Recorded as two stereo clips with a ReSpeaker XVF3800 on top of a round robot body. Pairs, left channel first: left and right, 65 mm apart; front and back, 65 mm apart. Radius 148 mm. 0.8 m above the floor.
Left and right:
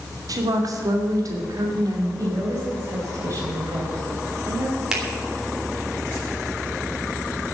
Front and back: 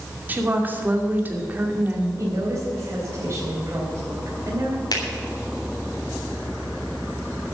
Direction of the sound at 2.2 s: 135° right.